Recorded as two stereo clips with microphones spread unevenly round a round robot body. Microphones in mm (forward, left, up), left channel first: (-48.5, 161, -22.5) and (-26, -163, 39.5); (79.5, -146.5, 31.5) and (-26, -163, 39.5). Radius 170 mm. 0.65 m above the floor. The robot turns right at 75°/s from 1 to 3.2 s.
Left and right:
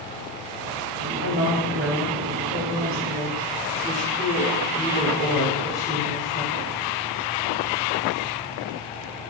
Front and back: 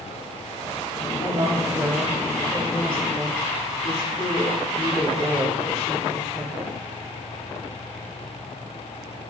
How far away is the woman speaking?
About 1.6 m.